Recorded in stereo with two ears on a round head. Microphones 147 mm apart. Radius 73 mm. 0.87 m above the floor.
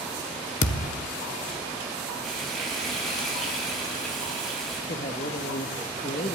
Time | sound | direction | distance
0.6 | a thud | 45° left (ahead or behind) | 0.8 m
2.2 | frying | centre (ahead or behind) | 6.5 m
4.9 | a man speaking | 40° left (ahead or behind) | 1.4 m